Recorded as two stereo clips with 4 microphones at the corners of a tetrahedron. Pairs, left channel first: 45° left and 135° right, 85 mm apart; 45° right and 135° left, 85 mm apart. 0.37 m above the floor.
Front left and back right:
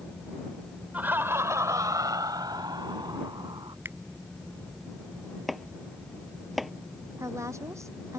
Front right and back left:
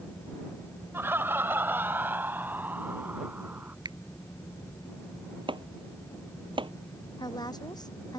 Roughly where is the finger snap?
Behind.